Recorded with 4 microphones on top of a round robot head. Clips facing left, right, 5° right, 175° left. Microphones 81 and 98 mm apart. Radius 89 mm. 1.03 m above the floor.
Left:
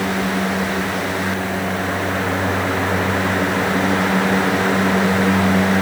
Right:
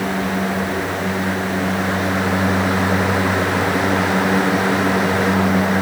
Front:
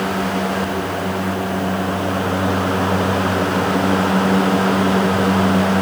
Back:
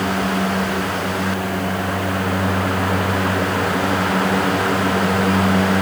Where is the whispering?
I don't hear whispering.